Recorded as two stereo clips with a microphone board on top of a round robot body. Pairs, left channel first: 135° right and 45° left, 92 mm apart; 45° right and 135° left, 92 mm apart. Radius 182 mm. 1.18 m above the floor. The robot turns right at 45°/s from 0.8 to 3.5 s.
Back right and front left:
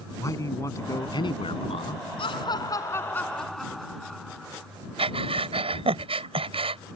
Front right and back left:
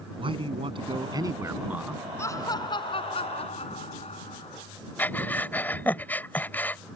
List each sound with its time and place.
0.2 s a man speaking: 165° left; by 2.0 s 135° right
2.2 s laughter: 110° right; by 4.7 s 50° right
5.0 s breathing: 30° left